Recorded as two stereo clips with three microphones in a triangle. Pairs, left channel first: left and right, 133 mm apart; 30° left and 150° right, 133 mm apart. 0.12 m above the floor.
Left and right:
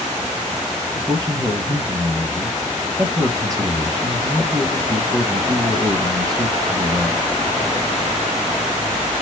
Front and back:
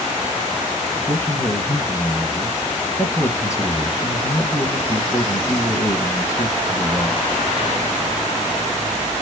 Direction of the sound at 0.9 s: 35° right.